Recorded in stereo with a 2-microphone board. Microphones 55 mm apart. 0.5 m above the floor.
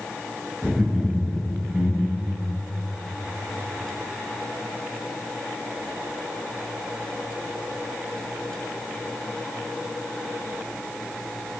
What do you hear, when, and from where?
0.6 s laughter: 5° right (ahead or behind), 2.5 m